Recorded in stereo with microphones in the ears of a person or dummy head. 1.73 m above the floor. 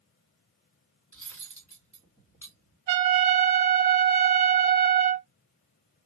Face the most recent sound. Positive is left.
turn(degrees=-15)  # may be behind; listen again after turning